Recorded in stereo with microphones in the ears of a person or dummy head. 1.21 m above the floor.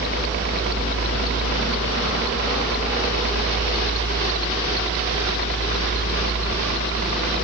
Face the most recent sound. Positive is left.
turn(degrees=-60)  # may be behind; listen again after turning